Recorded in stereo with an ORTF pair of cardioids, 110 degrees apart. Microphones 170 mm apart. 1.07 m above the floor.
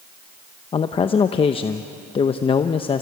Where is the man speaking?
35° left, 0.8 m.